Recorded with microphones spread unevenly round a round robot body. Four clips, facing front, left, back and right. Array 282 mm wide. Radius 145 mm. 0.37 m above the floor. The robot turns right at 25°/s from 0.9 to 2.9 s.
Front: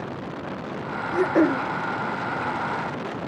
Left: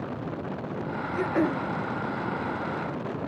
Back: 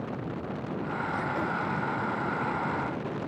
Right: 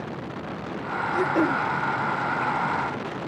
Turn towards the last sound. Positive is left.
turn(degrees=25)